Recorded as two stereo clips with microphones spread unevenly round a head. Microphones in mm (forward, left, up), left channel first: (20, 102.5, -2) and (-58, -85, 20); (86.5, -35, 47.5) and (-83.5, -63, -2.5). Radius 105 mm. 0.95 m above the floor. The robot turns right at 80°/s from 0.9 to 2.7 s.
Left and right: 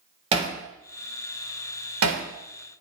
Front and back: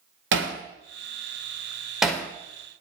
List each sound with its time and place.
0.3 s hammering: 175° right, 2.5 m; by 2.2 s 65° right, 2.5 m